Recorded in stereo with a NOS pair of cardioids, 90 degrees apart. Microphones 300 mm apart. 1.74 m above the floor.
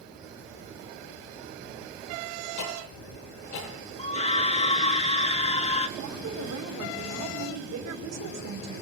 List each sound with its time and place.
2.6 s ticking: 70° left, 9 m
4.0 s a scream: 20° left, 4 m
6.0 s a woman speaking: 60° right, 5.5 m